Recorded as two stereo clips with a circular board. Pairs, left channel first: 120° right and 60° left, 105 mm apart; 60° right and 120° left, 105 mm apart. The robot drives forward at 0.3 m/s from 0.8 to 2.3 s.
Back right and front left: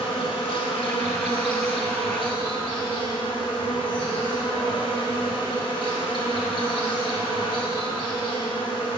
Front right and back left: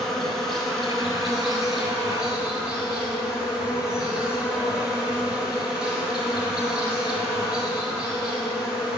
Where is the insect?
145° right, 1.0 m; by 9.0 s 155° right, 1.4 m.